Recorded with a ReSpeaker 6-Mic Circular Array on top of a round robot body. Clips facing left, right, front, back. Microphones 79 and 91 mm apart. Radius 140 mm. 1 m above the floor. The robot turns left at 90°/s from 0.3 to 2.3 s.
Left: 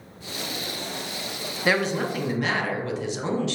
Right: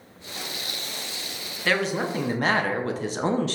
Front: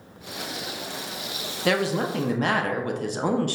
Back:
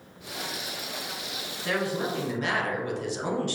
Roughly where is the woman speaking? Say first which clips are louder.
Left 1 dB, front 5 dB; ahead.